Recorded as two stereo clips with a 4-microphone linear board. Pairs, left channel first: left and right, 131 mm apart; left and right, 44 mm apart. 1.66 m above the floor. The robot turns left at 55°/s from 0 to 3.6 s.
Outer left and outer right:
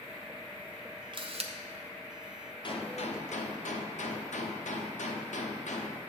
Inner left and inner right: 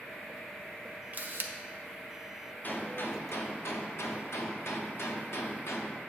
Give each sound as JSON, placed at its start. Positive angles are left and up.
{"t": 1.1, "sound": "a camera shutter", "side_deg": -40, "distance_m": 0.7}
{"t": 2.6, "sound": "a gunshot", "azimuth_deg": 140, "distance_m": 0.7}